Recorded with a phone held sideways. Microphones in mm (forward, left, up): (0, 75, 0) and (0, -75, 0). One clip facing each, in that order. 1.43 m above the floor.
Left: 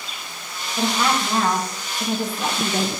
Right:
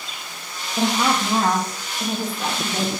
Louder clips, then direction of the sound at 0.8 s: Right 1 dB; 25° right (ahead or behind).